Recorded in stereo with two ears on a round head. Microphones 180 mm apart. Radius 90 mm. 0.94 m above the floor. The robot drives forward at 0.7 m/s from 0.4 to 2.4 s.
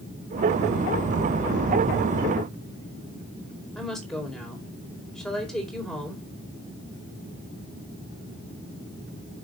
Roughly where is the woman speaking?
Centre.